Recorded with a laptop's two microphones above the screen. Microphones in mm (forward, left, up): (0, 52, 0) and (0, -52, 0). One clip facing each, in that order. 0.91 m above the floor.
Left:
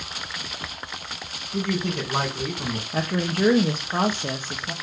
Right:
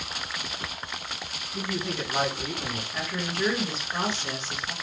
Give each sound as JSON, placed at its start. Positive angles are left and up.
{"t": 1.5, "sound": "a man speaking", "side_deg": 70, "distance_m": 4.5}
{"t": 2.9, "sound": "a woman speaking", "side_deg": 45, "distance_m": 1.2}